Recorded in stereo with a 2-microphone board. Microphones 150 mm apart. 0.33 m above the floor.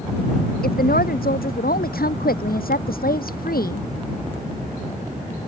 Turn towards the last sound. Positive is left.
turn(degrees=85)